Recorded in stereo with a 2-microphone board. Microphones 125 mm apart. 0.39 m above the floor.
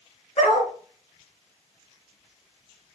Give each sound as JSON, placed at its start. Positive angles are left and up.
{"t": 0.4, "sound": "a dog barking", "side_deg": 50, "distance_m": 1.8}